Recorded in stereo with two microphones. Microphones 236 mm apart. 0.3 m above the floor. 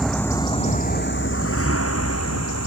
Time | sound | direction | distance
0.0 | a vehicle | centre (ahead or behind) | ?